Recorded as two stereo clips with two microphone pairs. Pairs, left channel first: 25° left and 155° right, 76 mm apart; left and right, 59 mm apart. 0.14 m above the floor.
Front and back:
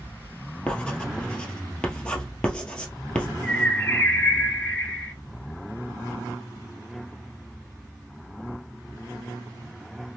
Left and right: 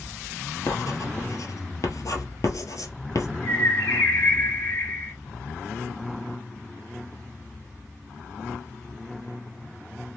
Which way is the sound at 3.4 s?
95° left.